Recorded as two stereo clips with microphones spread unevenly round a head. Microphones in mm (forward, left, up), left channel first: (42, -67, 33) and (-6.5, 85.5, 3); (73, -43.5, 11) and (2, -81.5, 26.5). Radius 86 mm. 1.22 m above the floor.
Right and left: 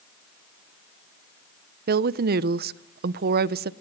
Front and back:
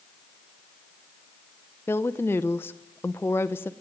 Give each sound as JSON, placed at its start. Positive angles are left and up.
{"t": 1.9, "sound": "a woman speaking", "azimuth_deg": 95, "distance_m": 0.6}